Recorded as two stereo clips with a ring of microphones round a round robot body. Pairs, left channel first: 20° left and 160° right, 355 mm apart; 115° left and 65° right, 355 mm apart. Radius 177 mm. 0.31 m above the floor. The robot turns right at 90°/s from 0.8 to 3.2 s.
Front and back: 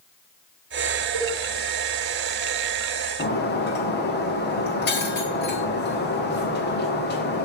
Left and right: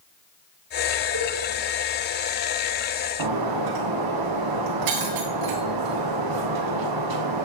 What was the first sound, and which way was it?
A cowbell, 130° right.